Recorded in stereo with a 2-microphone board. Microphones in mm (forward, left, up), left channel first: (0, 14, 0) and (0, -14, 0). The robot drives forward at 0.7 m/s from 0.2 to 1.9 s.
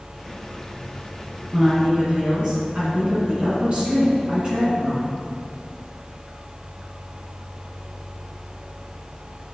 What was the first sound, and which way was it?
A woman speaking, 35° right (ahead or behind).